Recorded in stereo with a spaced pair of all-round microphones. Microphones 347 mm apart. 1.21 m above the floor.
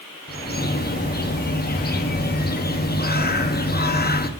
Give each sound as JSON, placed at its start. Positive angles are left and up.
{"t": 0.3, "sound": "a bird", "side_deg": 30, "distance_m": 0.6}